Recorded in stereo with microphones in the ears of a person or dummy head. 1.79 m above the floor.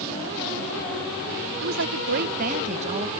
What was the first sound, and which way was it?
A woman speaking, 75° right (ahead or behind).